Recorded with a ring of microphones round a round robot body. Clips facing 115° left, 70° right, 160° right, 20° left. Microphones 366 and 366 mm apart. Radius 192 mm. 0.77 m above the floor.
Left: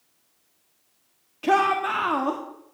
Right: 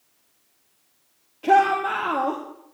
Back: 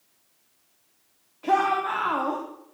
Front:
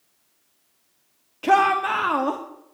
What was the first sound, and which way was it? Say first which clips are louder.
A shout: right 2 dB, front 4 dB; 55° left.